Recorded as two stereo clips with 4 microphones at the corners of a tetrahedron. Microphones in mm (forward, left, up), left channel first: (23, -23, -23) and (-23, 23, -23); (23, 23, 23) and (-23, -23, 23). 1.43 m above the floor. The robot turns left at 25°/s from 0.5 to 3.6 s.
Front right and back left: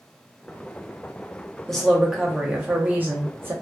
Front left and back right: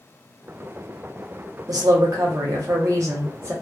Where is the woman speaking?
130° right, 0.9 m; by 3.5 s 175° right, 0.9 m.